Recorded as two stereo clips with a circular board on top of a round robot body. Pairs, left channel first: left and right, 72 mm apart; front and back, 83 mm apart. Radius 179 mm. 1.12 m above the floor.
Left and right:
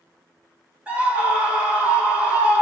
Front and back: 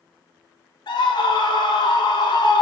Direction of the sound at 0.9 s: 20° right.